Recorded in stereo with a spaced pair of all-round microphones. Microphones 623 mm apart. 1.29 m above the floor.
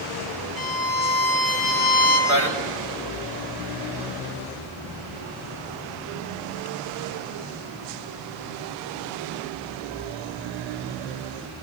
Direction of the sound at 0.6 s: 10° right (ahead or behind).